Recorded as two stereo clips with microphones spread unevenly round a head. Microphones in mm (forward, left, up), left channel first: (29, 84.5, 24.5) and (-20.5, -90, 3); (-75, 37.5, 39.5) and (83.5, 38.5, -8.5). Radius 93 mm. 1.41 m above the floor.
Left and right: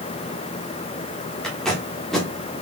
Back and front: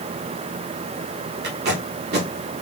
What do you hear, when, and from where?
1.4 s tape being pulled: 5° right, 1.1 m